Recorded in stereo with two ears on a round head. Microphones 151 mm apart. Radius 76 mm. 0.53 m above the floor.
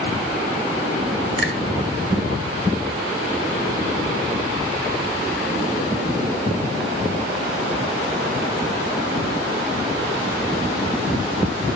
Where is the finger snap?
60° right (ahead or behind), 1.9 m.